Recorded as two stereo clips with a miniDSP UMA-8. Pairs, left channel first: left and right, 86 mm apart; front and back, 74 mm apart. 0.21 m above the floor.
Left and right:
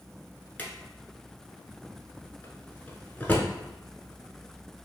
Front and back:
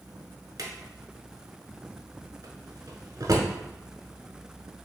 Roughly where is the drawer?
Behind.